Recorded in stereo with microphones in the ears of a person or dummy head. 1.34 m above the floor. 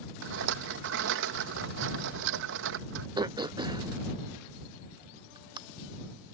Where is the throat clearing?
25° right (ahead or behind).